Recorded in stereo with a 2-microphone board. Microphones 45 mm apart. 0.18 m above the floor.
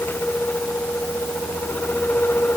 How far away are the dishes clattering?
No dishes clattering in this recording.